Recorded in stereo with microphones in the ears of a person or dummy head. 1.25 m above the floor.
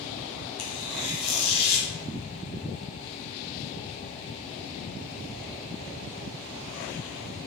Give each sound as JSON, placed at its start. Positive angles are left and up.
{"t": 0.6, "sound": "tearing paper", "side_deg": 35, "distance_m": 0.6}